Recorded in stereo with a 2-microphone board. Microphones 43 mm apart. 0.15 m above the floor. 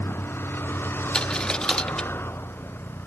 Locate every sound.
0.0 s a vehicle: 65° left (ahead or behind)
1.1 s a dropped coin: 15° left (ahead or behind)